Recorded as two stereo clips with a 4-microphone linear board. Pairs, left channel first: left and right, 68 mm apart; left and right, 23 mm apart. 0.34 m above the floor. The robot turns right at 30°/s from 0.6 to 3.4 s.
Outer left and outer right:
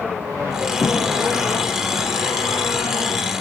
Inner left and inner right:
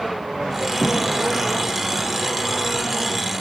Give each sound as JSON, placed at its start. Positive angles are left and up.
{"t": 0.8, "sound": "a thud", "side_deg": -5, "distance_m": 5.5}